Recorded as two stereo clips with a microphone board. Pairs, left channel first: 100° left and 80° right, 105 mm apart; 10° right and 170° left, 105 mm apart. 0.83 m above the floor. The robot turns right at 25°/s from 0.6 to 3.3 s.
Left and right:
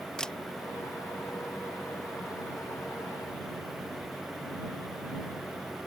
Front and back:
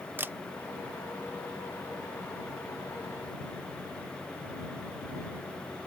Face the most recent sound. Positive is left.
turn(degrees=-125)